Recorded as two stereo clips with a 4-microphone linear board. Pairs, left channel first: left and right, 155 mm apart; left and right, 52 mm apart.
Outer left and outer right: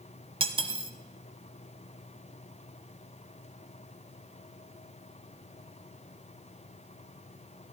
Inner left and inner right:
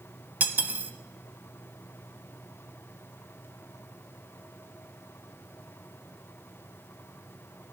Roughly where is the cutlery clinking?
Right.